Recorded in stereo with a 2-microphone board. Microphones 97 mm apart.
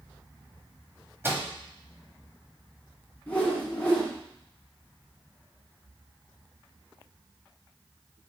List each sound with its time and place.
1.2 s a microwave: 25° right (ahead or behind), 0.8 m
3.3 s a whoosh: 15° left (ahead or behind), 1.7 m